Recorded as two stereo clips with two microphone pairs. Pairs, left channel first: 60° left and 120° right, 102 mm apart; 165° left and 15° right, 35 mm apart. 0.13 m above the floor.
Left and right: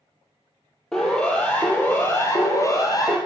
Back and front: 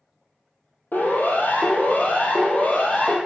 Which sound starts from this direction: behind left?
A siren, at 0.9 s.